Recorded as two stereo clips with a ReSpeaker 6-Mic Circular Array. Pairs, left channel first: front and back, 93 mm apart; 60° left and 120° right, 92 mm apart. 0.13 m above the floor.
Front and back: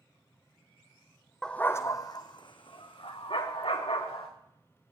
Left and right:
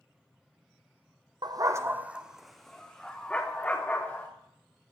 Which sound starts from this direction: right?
A dog barking, at 1.4 s.